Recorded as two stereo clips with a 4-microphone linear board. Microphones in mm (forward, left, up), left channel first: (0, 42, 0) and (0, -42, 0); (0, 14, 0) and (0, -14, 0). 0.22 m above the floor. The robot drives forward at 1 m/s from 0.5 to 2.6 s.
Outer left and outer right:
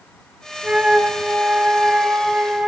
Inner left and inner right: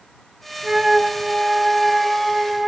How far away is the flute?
About 1.2 m.